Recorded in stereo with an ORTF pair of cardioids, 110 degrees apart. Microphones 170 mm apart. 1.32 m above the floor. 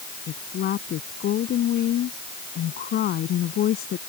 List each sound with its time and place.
0.3 s a woman speaking: 60° left